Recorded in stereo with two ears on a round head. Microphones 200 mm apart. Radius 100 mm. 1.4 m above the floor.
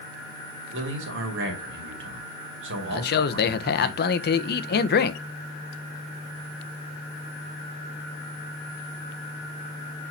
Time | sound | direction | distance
0.7 | a man speaking | 60° right (ahead or behind) | 3 m
2.9 | a man speaking | 45° left (ahead or behind) | 0.9 m